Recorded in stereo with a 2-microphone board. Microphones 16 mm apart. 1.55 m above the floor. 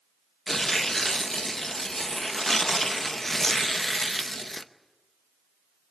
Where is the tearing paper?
20° left (ahead or behind), 0.8 m.